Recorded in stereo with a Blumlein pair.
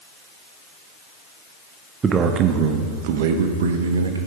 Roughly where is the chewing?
I don't hear chewing.